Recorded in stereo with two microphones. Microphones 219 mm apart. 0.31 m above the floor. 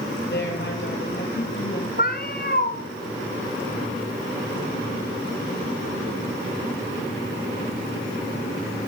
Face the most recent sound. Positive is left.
turn(degrees=45)  # may be behind; listen again after turning